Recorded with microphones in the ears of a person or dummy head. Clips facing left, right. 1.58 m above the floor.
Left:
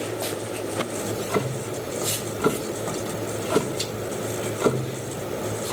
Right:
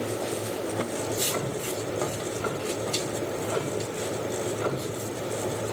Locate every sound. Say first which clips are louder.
1.0 s ticking: left 3 dB; 65° left (ahead or behind), 2.5 m